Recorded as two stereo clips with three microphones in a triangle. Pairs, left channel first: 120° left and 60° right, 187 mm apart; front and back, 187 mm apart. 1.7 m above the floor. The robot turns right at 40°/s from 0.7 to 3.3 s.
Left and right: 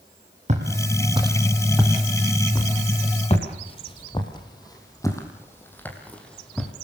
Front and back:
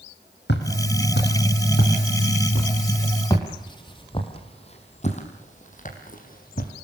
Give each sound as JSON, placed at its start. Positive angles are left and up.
{"t": 0.5, "sound": "footsteps", "azimuth_deg": -10, "distance_m": 4.5}